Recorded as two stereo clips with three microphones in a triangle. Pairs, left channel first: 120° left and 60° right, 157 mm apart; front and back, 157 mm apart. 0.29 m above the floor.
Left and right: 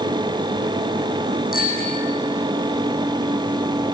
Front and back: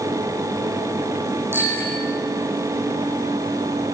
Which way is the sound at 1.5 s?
105° left.